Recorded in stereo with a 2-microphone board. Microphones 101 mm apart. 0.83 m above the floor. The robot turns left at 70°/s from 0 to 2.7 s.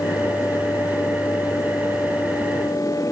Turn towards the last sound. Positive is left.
No sound to turn to.